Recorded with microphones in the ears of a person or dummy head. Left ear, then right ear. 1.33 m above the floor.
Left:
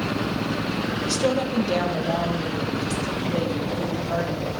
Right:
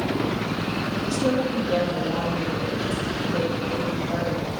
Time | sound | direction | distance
1.0 | a woman speaking | 60° left (ahead or behind) | 0.7 m